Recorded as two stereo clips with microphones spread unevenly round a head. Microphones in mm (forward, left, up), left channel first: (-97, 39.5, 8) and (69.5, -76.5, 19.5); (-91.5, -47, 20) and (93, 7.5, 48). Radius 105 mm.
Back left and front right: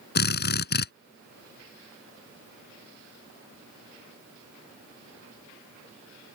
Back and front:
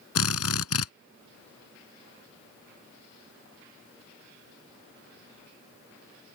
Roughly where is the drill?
Behind.